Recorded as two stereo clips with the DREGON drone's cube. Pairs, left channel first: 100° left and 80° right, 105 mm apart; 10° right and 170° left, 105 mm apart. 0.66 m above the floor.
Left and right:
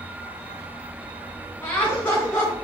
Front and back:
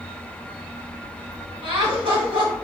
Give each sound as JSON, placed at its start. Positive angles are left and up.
{"t": 1.6, "sound": "laughter", "azimuth_deg": 165, "distance_m": 1.8}